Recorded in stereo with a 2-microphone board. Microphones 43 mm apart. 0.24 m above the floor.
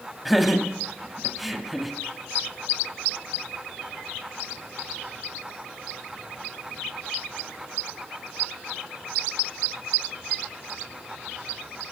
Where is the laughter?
Centre (ahead or behind), 1.1 m.